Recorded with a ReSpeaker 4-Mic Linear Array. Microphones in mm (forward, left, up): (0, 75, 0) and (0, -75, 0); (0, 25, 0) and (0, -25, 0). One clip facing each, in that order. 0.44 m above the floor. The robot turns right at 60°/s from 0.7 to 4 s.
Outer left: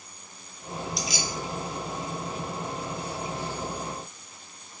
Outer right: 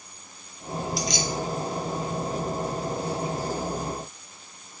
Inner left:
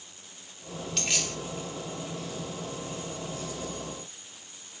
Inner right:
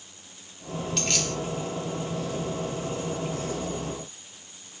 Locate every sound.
1.0 s keys jangling: centre (ahead or behind), 0.7 m; by 1.4 s 15° left (ahead or behind), 0.7 m